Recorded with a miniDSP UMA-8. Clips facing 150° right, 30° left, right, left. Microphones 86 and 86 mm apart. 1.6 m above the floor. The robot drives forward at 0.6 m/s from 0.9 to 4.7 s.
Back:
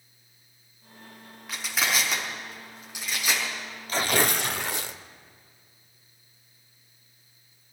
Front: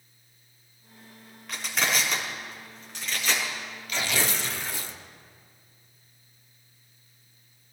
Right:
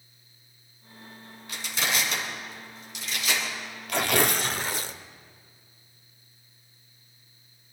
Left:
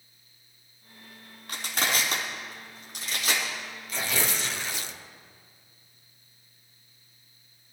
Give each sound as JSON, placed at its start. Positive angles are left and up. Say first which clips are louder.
{"t": 1.5, "sound": "crushing", "louder": "even, left 1 dB", "azimuth_deg": 125, "distance_m": 4.5}
{"t": 3.9, "sound": "tearing paper", "louder": "back 4 dB, right 7 dB", "azimuth_deg": -100, "distance_m": 0.6}